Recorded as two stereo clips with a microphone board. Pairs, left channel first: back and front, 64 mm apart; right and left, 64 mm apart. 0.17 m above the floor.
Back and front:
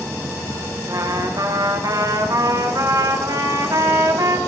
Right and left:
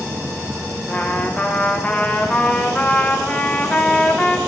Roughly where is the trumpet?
Ahead.